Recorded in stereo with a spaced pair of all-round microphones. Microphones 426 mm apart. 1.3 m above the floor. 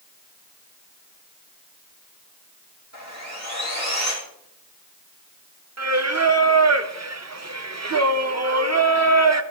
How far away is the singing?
About 0.6 m.